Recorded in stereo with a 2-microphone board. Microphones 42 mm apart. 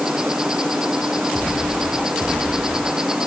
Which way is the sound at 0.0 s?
15° right (ahead or behind).